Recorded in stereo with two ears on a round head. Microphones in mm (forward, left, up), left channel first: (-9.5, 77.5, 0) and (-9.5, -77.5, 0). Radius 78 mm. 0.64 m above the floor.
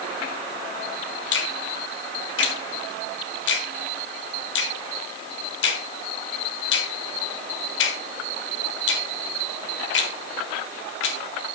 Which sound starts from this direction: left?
A finger snap, at 1.3 s.